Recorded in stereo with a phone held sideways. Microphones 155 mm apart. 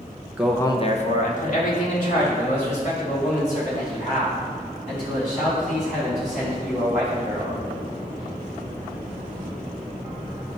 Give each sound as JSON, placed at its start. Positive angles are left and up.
{"t": 0.4, "sound": "a man speaking", "side_deg": -10, "distance_m": 0.6}